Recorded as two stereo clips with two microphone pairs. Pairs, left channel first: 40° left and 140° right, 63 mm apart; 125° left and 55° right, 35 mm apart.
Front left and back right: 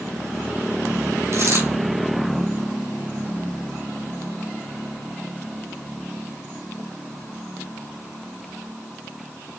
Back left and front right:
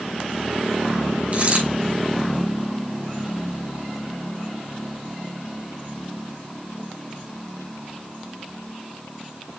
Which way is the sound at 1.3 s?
105° right.